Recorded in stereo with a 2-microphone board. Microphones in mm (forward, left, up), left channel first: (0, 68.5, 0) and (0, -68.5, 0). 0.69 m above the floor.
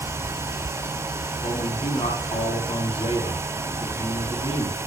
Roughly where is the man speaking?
Left.